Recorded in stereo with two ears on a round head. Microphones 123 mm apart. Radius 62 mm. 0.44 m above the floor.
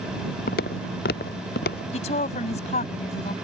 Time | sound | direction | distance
0.5 | footsteps | 75° left (ahead or behind) | ?
1.9 | a woman speaking | 50° left (ahead or behind) | ?